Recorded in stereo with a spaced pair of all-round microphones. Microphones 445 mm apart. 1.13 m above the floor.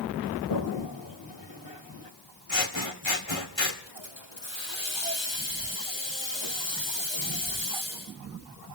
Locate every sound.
0.5 s a toilet flushing: 70° left (ahead or behind), 1.9 m
2.5 s scissors: 80° left, 2 m
3.9 s a hiss: 80° left, 2.5 m